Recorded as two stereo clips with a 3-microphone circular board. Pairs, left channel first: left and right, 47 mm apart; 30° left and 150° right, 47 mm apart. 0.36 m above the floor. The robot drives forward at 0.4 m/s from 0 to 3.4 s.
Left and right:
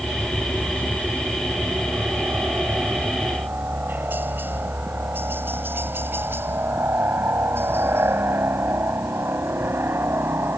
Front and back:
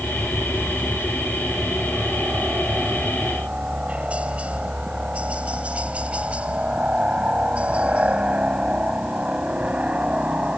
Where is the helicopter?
105° right; by 10.6 s 90° right.